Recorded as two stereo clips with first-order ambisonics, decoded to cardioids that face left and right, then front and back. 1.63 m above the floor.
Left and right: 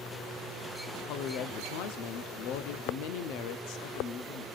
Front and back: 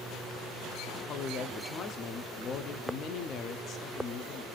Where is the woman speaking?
60° left, 0.5 m.